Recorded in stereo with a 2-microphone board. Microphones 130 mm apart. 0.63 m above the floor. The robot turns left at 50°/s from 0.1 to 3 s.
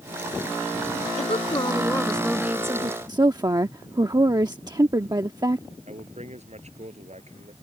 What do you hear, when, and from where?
1.2 s a woman speaking: 55° left; by 3.0 s 35° right
3.1 s a woman speaking: 30° right (ahead or behind)
5.9 s a man speaking: 55° right (ahead or behind)